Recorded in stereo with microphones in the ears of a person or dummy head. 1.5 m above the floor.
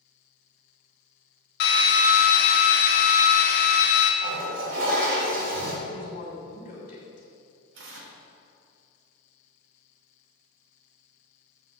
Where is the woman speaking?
45° left (ahead or behind), 3 m.